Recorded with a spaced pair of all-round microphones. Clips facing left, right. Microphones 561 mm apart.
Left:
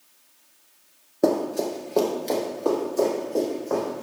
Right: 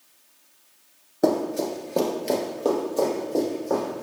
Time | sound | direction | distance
1.2 | running footsteps | 10° right (ahead or behind) | 1.4 m